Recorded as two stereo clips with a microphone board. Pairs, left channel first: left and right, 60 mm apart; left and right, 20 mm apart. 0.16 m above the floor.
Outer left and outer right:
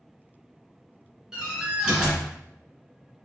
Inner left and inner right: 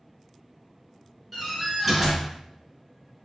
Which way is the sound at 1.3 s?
10° right (ahead or behind).